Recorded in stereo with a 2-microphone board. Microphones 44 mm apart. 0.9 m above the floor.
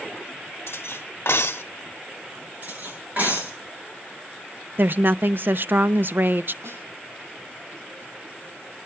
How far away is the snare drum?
About 6.5 m.